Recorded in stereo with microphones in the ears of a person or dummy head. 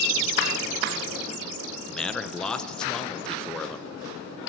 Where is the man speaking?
5° left (ahead or behind), 0.5 m.